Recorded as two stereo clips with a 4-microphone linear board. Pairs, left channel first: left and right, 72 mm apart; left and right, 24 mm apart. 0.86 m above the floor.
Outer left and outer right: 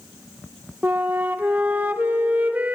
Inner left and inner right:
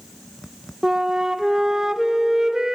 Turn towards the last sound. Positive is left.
turn(degrees=-25)  # may be behind; listen again after turning